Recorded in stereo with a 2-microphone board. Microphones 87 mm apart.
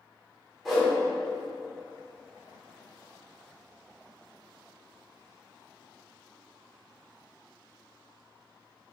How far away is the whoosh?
About 1.9 m.